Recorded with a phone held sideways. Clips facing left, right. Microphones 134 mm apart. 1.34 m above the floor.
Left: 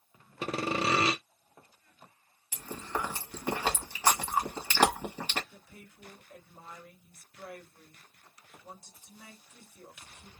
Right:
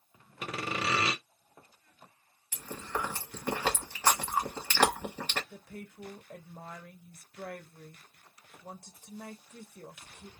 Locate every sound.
0.4 s sawing: 30° left (ahead or behind), 0.5 m
2.5 s chewing: 10° left (ahead or behind), 1.1 m
5.5 s a woman speaking: 65° right (ahead or behind), 0.8 m